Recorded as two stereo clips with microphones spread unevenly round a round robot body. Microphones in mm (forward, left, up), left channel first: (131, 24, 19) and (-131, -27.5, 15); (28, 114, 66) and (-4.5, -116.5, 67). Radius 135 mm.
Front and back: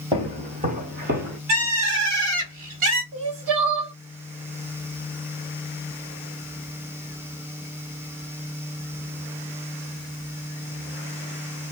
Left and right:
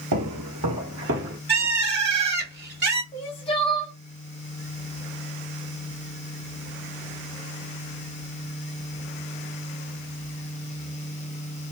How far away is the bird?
About 1.3 m.